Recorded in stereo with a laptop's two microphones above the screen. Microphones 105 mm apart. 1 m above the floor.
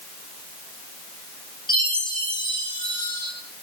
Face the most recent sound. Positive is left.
turn(degrees=45)  # may be behind; listen again after turning